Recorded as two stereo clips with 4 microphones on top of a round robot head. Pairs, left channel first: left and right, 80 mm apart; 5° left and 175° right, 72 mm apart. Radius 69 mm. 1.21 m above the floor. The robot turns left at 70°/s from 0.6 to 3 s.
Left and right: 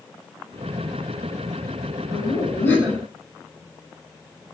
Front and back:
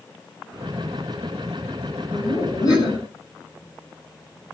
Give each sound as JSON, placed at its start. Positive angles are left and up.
{"t": 2.1, "sound": "laughter", "azimuth_deg": 70, "distance_m": 9.0}